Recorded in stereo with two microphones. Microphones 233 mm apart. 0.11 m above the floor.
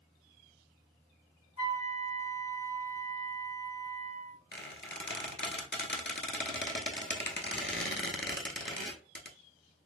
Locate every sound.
1.6 s a flute: 60° left (ahead or behind), 1.0 m
4.5 s a squeak: 50° left (ahead or behind), 0.7 m